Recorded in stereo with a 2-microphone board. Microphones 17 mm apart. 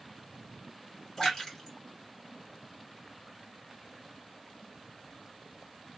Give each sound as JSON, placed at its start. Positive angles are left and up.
{"t": 1.2, "sound": "a splash", "side_deg": 30, "distance_m": 1.9}